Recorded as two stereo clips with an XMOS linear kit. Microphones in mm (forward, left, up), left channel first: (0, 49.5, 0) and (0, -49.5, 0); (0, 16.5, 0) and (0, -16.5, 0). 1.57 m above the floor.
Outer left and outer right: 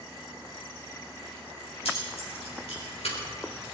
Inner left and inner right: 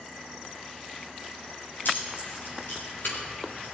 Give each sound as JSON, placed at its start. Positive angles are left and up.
{"t": 1.9, "sound": "keys jangling", "side_deg": 85, "distance_m": 5.0}